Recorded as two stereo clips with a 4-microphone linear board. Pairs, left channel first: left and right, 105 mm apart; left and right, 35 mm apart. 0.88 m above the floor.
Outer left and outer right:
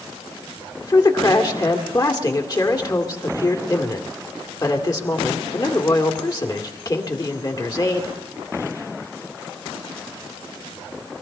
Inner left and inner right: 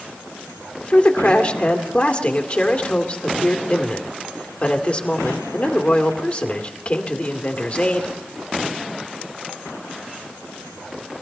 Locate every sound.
0.8 s a man speaking: 40° left (ahead or behind), 2 m